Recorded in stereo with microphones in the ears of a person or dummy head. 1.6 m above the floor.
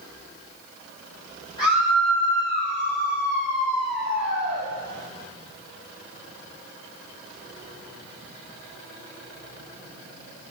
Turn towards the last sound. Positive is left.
turn(degrees=85)